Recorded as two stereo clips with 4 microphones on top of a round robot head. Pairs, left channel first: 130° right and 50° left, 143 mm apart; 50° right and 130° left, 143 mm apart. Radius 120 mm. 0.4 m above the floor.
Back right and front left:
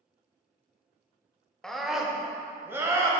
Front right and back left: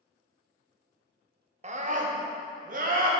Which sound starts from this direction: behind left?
A scream, at 1.6 s.